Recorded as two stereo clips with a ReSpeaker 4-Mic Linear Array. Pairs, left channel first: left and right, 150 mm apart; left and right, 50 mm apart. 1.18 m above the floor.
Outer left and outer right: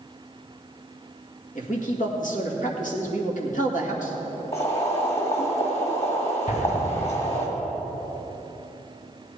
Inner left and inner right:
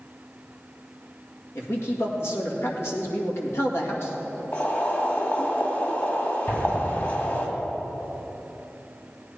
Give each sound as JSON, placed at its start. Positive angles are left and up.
{"t": 1.6, "sound": "a man speaking", "side_deg": 65, "distance_m": 2.0}
{"t": 4.5, "sound": "boiling", "side_deg": 45, "distance_m": 1.9}
{"t": 6.5, "sound": "an explosion", "side_deg": 60, "distance_m": 2.5}